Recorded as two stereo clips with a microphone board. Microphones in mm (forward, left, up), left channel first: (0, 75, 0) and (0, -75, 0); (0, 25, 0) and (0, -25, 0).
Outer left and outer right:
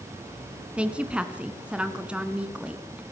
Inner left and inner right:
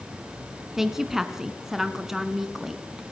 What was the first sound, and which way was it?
A woman speaking, 5° right (ahead or behind).